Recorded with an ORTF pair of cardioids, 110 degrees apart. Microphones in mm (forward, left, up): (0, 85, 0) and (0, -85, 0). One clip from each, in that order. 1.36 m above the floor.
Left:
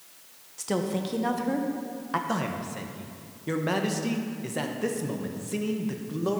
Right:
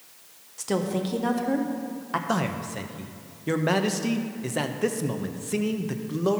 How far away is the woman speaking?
About 1.0 m.